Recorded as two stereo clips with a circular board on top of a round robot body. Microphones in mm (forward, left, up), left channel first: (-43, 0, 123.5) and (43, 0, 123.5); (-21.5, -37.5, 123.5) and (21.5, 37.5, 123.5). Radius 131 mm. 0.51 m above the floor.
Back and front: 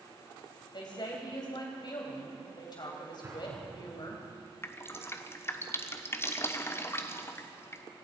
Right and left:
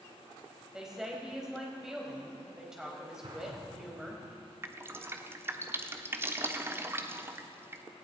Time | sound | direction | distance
0.7 | a woman speaking | 145° left | 4 m
3.2 | an explosion | 60° left | 7 m
4.6 | dripping | 120° left | 1.2 m